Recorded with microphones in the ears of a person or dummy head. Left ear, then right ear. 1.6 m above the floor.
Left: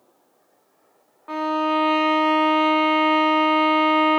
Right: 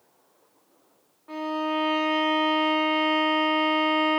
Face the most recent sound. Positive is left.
turn(degrees=55)  # may be behind; listen again after turning